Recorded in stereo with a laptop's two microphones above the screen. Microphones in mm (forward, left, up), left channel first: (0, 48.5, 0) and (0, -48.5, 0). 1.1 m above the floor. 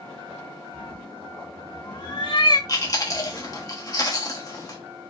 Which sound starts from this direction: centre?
A cat meowing, at 0.7 s.